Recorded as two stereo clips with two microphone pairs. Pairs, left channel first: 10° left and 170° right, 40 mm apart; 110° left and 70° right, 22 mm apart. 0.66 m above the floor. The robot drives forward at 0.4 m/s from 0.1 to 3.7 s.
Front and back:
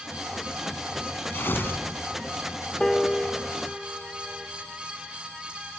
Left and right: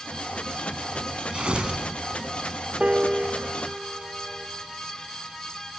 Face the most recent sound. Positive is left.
turn(degrees=-80)